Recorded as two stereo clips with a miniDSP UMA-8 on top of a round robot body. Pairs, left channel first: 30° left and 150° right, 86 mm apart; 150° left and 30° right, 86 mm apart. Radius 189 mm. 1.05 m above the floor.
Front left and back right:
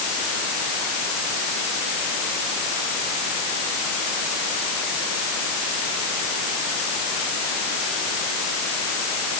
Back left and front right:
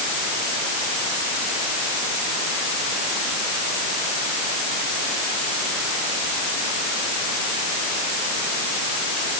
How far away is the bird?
No bird in this recording.